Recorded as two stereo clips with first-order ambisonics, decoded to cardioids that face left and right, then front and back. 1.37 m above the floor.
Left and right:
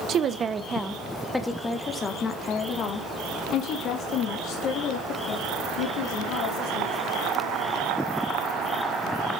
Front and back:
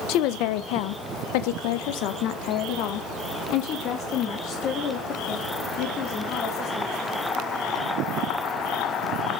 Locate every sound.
0.1 s a woman speaking: 35° right, 1.0 m; by 6.9 s 55° left, 4 m